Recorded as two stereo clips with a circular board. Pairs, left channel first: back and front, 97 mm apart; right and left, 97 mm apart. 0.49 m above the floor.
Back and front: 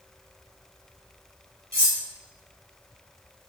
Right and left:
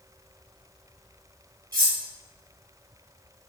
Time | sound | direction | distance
1.7 | cutlery clinking | 60° left | 1.2 m